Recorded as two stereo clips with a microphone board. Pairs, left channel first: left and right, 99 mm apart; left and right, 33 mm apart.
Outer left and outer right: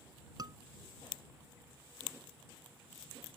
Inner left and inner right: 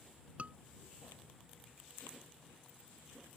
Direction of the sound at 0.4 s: 45° right (ahead or behind).